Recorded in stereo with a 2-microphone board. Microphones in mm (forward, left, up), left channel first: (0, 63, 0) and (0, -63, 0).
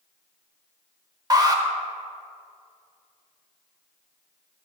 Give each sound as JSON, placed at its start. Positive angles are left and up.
{"t": 1.3, "sound": "an alarm", "side_deg": -30, "distance_m": 0.6}